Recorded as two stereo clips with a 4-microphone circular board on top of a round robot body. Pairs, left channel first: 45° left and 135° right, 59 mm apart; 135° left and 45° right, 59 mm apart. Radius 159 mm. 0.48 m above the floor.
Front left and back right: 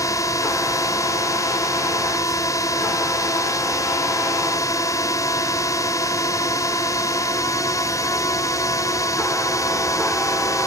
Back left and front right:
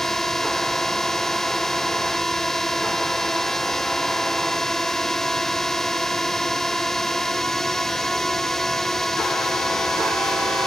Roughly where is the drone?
Ahead left.